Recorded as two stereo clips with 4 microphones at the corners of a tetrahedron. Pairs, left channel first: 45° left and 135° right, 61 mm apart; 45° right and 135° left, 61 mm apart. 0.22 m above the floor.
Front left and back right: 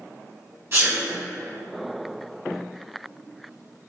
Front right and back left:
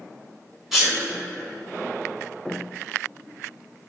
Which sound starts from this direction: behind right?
A sneeze, at 0.7 s.